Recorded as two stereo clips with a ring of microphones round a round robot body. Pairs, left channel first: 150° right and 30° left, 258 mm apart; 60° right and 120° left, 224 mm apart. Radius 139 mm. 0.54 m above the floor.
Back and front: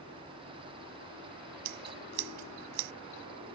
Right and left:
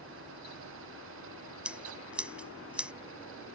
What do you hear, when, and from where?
1.6 s scissors: 35° left